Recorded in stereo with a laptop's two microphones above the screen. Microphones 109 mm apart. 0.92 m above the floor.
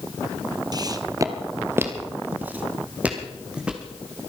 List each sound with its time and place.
0.7 s footsteps: 40° right (ahead or behind), 1.2 m; by 3.9 s 10° right (ahead or behind), 3.5 m